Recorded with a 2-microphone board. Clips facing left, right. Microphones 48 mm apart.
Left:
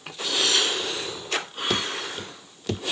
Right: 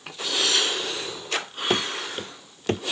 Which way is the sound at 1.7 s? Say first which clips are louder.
Right 2 dB; 30° right (ahead or behind).